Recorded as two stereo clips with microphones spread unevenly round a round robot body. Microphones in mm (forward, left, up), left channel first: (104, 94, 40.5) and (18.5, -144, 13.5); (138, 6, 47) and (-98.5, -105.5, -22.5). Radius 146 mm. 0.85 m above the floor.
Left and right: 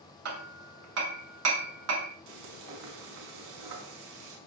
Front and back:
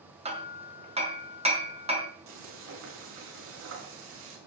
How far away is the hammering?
About 4.5 m.